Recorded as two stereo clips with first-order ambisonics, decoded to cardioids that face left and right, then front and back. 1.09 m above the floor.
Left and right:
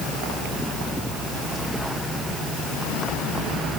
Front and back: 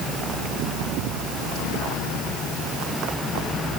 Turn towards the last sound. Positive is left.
No sound to turn to.